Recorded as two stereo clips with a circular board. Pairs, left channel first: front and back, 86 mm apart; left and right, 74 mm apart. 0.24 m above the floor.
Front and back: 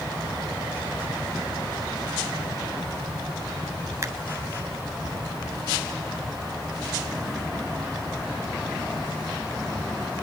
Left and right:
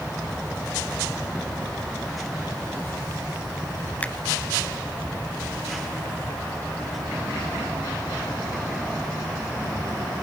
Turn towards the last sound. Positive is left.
turn(degrees=150)